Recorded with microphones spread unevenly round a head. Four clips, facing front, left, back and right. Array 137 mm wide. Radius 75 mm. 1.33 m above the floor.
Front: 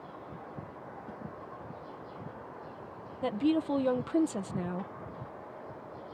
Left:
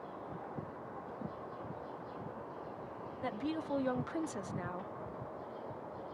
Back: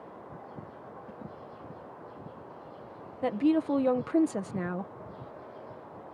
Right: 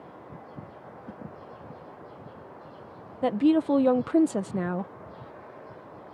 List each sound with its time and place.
1.1 s a whoosh: 90° right
3.2 s a woman speaking: 100° right